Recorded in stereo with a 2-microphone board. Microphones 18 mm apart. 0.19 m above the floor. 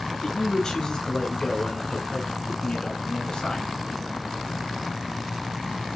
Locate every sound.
0.2 s a man speaking: 35° left (ahead or behind), 3.5 m; by 3.7 s 50° left (ahead or behind), 2.5 m